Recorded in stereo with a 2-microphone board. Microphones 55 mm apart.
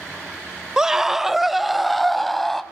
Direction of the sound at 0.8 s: 10° right (ahead or behind).